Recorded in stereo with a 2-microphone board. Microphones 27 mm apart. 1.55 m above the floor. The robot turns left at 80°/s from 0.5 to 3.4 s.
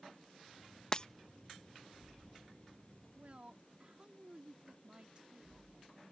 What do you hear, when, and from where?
0.9 s breaking glass: 25° left (ahead or behind); by 1.1 s 35° left (ahead or behind)
3.2 s a woman speaking: 55° right (ahead or behind); by 6.0 s 35° right (ahead or behind)